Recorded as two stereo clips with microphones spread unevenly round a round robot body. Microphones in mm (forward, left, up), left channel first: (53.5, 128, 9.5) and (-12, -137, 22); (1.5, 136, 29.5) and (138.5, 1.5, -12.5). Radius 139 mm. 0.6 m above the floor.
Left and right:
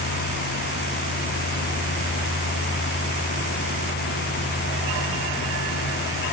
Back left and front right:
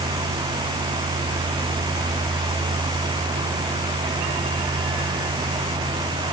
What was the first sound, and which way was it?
Only background noise.